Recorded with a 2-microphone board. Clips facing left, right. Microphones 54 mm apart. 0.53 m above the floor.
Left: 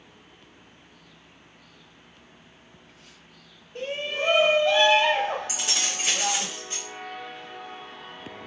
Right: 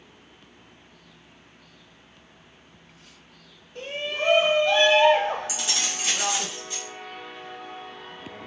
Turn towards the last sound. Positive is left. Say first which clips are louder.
# even
turn(degrees=45)  # may be behind; listen again after turning